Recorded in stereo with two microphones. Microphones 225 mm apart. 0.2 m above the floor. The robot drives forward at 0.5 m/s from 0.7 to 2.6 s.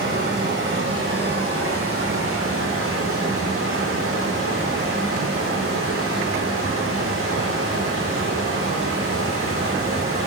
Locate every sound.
0.0 s running water: 60° right (ahead or behind), 2.5 m; by 10.3 s 80° right, 2.5 m